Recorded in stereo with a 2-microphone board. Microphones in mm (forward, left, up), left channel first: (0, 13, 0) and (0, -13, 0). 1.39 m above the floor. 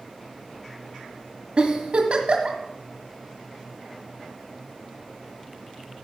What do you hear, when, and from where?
1.6 s a giggle: 50° right (ahead or behind), 1.8 m